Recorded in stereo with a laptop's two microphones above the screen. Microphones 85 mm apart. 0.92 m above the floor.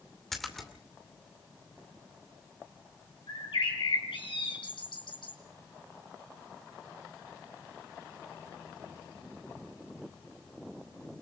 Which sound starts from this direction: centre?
A splash, at 0.3 s.